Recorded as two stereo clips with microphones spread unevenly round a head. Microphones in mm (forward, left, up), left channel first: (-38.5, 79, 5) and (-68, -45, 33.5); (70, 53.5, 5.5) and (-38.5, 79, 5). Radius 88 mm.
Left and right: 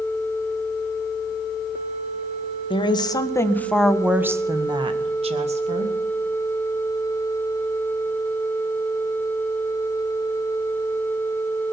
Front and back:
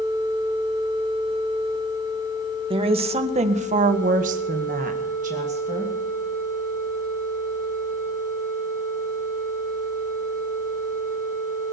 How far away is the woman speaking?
About 2.5 m.